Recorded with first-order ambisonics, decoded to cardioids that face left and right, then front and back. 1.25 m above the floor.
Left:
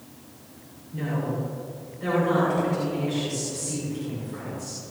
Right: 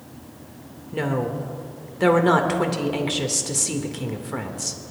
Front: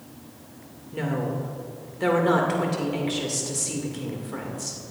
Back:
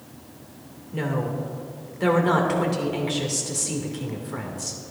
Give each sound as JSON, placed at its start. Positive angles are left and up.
{"t": 0.9, "sound": "a woman speaking", "azimuth_deg": -90, "distance_m": 2.0}